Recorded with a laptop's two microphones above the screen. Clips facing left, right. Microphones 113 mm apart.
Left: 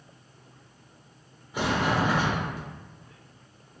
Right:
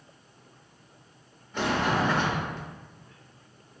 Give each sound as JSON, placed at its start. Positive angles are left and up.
{"t": 1.5, "sound": "a sliding door", "side_deg": 10, "distance_m": 0.6}